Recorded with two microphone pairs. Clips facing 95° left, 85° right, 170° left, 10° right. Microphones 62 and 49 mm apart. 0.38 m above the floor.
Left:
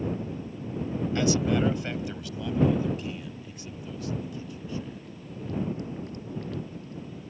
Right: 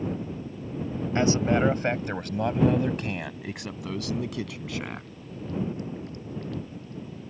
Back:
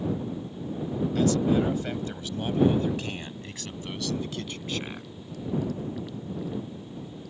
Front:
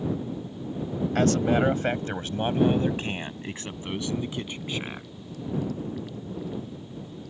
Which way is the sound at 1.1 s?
30° right.